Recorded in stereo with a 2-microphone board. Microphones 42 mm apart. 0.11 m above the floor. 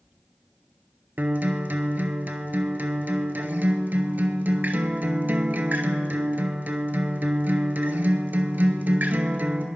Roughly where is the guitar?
Right.